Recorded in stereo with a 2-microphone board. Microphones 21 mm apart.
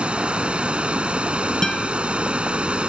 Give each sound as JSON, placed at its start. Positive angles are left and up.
{"t": 0.0, "sound": "running water", "side_deg": -55}
{"t": 1.6, "sound": "a guitar", "side_deg": 20}